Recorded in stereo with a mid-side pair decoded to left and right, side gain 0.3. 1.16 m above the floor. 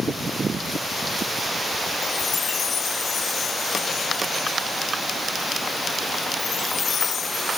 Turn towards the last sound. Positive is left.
turn(degrees=65)